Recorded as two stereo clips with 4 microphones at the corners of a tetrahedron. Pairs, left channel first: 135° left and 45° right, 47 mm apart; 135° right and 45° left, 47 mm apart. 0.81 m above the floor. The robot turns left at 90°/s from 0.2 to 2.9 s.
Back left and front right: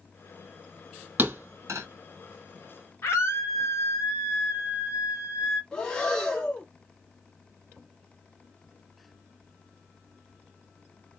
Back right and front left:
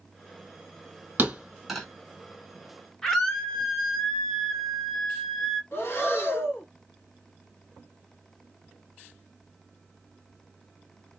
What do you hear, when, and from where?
1.2 s a thud: straight ahead, 1.6 m; by 1.9 s 60° right, 1.6 m
3.0 s a scream: 145° left, 1.8 m
5.7 s breathing: 155° right, 1.6 m